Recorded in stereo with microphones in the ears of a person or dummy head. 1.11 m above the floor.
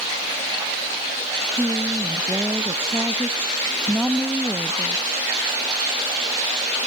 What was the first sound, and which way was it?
A woman speaking, 5° right (ahead or behind).